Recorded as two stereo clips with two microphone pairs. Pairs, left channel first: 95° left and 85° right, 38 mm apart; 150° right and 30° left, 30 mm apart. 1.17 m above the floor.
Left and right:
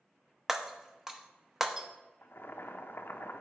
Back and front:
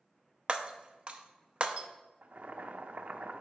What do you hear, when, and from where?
0.5 s breaking glass: 10° right, 0.7 m
2.2 s boiling: 65° left, 0.6 m